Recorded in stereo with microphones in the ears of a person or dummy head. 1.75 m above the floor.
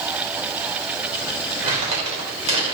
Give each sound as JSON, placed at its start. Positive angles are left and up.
{"t": 1.6, "sound": "crumpling", "side_deg": -30, "distance_m": 5.0}